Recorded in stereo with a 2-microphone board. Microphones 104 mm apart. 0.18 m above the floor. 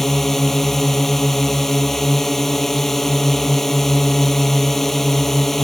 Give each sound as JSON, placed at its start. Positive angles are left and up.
{"t": 0.0, "sound": "a drone", "side_deg": 0}